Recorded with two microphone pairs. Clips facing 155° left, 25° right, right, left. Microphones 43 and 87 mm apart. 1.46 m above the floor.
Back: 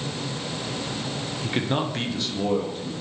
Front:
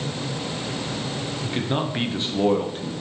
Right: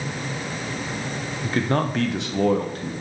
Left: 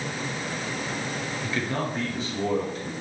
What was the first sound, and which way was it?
A man speaking, 145° right.